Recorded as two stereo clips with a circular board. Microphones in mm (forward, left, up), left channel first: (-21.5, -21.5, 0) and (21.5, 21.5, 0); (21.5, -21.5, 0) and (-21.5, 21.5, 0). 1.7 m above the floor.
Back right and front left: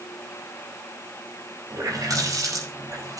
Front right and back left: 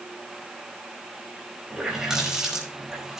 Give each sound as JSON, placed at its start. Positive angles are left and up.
{"t": 1.7, "sound": "a running tap", "azimuth_deg": 50, "distance_m": 5.0}